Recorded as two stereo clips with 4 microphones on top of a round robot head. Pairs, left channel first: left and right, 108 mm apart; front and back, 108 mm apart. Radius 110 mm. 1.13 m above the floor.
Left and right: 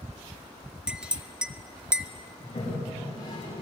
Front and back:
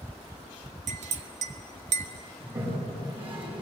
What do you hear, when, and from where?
0.9 s a clink: 170° right, 1.4 m
2.4 s a toilet flushing: 140° left, 9 m